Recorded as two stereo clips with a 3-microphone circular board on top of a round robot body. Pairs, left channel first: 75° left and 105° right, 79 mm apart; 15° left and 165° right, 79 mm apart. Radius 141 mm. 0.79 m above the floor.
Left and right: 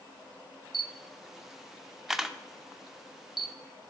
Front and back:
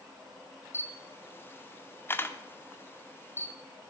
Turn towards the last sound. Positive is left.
turn(degrees=-20)